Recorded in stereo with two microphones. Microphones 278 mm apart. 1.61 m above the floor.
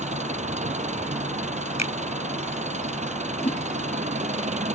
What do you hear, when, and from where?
0.0 s an engine running: 25° right (ahead or behind)
1.8 s a finger snap: 70° left (ahead or behind)
3.4 s a whoosh: 20° left (ahead or behind)